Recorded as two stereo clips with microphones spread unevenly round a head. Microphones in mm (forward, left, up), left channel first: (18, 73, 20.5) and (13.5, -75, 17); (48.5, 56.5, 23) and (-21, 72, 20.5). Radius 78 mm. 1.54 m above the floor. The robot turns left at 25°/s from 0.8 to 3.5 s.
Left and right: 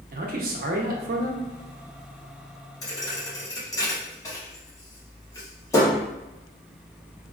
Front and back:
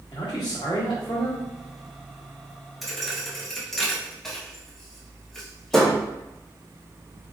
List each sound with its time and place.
0.1 s a man speaking: 70° right, 0.8 m; by 1.5 s 85° right, 0.8 m
2.8 s a thud: 75° left, 0.8 m; by 6.0 s 60° left, 0.8 m